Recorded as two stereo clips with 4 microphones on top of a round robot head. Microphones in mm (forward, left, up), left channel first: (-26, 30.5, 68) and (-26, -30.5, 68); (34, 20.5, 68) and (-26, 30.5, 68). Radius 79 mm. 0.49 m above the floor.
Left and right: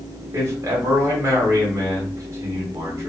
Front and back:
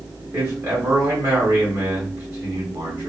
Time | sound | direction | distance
0.3 | a man speaking | 135° right | 2 m